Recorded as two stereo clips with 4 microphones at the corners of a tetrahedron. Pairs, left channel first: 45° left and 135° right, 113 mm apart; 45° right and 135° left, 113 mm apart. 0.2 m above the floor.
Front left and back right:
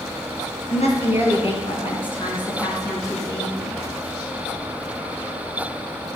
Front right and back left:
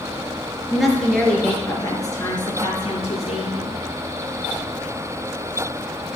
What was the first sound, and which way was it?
A woman speaking, 50° left.